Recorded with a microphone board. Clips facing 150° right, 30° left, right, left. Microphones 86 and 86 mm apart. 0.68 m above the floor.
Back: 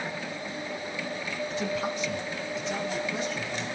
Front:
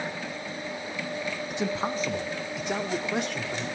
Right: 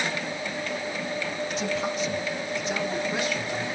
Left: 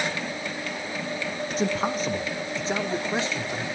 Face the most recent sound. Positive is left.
turn(degrees=25)